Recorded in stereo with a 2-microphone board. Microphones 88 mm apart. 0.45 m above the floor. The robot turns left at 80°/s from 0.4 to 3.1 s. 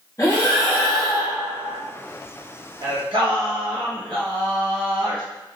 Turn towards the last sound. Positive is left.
turn(degrees=-85)